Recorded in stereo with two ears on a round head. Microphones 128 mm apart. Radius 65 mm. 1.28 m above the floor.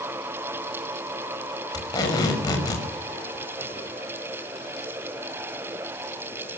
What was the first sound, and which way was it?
Tape being pulled, 25° left (ahead or behind).